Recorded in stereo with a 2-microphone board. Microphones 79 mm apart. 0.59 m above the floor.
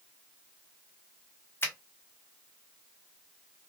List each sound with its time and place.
1.6 s a finger snap: 30° left (ahead or behind), 0.9 m